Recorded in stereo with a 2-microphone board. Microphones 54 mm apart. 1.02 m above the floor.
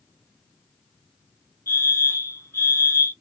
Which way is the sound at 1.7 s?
50° left (ahead or behind).